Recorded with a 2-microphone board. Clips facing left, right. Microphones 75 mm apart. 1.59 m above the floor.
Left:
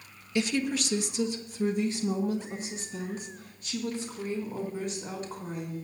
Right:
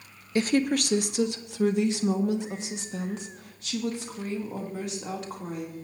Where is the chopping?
I don't hear chopping.